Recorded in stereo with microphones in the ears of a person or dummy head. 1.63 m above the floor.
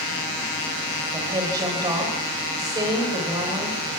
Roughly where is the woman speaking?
Centre.